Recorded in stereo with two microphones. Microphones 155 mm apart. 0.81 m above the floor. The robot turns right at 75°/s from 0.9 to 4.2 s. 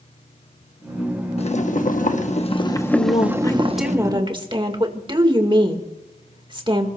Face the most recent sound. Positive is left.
turn(degrees=-145)